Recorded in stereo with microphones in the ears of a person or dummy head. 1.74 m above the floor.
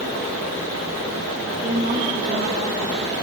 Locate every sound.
1.6 s a woman speaking: 45° right (ahead or behind), 2 m; by 2.8 s 65° right (ahead or behind), 2.5 m